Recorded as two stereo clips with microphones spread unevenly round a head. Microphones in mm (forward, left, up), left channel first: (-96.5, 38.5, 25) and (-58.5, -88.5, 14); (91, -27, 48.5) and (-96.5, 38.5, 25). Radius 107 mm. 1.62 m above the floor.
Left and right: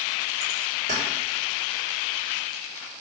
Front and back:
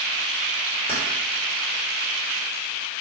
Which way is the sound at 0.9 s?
80° right.